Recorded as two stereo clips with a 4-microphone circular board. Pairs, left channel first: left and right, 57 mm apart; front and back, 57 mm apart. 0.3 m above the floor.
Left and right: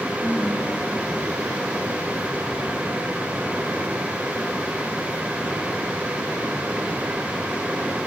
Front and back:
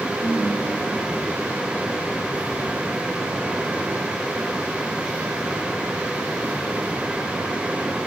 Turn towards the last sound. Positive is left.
turn(degrees=155)